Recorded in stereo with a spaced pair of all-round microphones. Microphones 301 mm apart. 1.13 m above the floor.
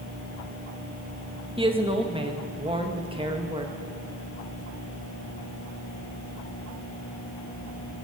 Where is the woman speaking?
20° right (ahead or behind), 0.9 m.